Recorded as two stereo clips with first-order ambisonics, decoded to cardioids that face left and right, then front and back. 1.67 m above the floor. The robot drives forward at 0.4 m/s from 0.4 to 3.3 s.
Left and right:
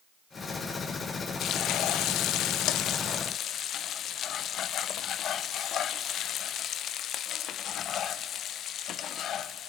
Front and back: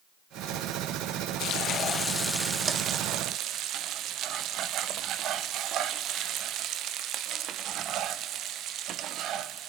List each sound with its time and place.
1.4 s frying: 45° left, 0.6 m; by 9.7 s 140° left, 0.6 m